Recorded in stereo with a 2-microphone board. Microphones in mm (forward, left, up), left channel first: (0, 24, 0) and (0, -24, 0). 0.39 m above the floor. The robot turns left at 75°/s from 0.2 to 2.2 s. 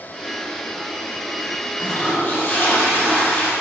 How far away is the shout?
No shout in this recording.